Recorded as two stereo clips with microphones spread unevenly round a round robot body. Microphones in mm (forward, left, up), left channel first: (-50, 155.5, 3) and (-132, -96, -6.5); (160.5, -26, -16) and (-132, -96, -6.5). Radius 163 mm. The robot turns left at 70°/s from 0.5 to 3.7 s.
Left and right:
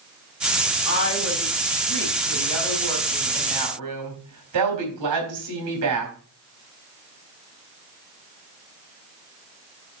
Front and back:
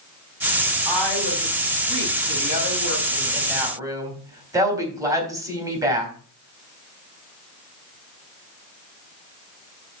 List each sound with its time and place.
0.8 s a woman speaking: 110° left, 4 m; by 6.1 s 90° right, 4 m